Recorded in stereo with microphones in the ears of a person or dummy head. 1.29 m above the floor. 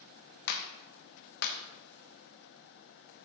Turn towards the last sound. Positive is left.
turn(degrees=55)  # may be behind; listen again after turning